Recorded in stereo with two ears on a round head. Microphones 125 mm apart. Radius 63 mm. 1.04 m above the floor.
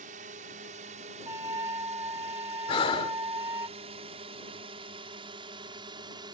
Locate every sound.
0.0 s a drone: 60° right (ahead or behind); by 6.3 s 35° right (ahead or behind)
1.3 s a flute: 20° right (ahead or behind)
2.7 s breathing: 40° left (ahead or behind)